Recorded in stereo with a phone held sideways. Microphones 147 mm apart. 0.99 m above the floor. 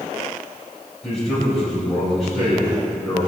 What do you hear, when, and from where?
1.0 s a man speaking: centre (ahead or behind), 4.5 m